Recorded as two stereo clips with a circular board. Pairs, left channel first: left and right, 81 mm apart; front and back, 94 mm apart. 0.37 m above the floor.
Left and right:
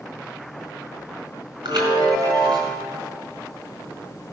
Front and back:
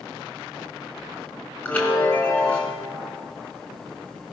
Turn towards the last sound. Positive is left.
turn(degrees=-70)